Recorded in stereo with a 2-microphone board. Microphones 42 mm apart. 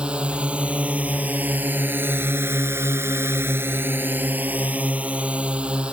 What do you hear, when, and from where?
0.0 s a drone: 25° right (ahead or behind)